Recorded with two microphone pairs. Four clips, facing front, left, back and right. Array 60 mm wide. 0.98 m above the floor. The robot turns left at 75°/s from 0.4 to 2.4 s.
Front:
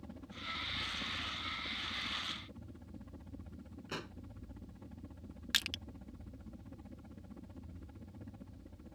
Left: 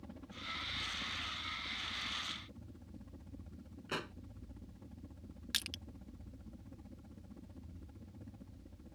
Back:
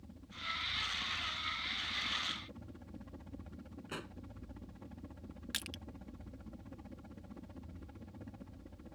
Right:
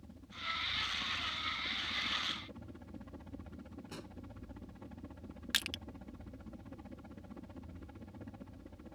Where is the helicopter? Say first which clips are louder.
Right 3 dB, back 1 dB; 45° left; by 8.9 s 105° right.